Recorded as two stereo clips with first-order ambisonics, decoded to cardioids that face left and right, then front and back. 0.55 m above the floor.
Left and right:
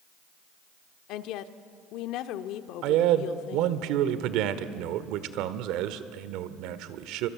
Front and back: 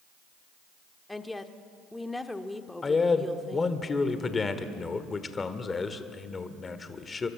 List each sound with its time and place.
1.1 s a woman speaking: 80° left, 1.0 m
2.8 s a man speaking: 70° right, 1.3 m